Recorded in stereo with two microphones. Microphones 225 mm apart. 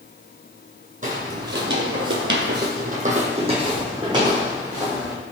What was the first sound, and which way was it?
Footsteps, 35° right (ahead or behind).